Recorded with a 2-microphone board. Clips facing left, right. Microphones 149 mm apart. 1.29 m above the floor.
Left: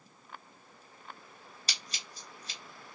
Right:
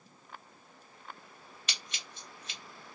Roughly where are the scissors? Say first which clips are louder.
Even; left.